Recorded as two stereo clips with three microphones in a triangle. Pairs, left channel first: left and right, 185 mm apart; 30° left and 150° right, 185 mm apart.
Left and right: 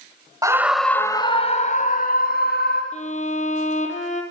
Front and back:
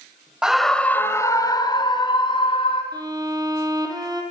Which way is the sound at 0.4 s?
70° right.